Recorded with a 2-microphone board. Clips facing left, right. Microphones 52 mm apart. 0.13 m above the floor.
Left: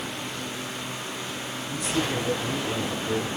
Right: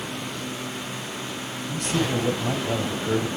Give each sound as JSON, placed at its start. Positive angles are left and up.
{"t": 1.7, "sound": "a man speaking", "side_deg": -65, "distance_m": 3.5}